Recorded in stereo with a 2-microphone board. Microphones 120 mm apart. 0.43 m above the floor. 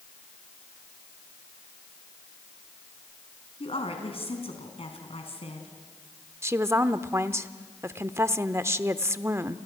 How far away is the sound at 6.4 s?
About 0.7 m.